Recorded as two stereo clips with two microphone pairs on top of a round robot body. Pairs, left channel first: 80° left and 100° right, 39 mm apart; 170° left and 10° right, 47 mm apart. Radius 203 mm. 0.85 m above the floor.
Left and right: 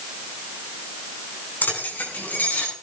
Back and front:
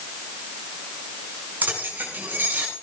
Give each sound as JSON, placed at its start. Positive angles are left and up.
{"t": 1.6, "sound": "keys jangling", "azimuth_deg": 40, "distance_m": 7.0}